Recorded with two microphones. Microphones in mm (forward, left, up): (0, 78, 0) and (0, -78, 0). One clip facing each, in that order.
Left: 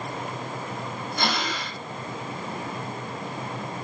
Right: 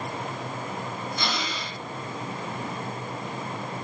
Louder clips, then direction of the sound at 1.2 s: Left 6 dB; 65° left (ahead or behind).